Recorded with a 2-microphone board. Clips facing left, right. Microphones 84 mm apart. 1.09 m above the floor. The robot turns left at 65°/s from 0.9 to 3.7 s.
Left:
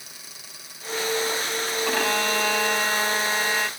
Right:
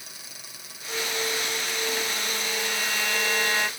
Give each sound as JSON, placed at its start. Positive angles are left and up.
{"t": 1.9, "sound": "a violin", "azimuth_deg": 115}